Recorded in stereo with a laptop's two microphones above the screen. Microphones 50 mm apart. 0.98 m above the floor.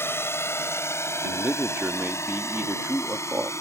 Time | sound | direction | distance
0.0 | a drone | 60° left (ahead or behind) | ?
1.2 | a man speaking | 45° right (ahead or behind) | ?